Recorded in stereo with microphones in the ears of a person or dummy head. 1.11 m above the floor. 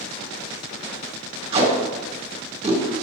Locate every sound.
1.5 s tape being pulled: 40° right (ahead or behind), 2 m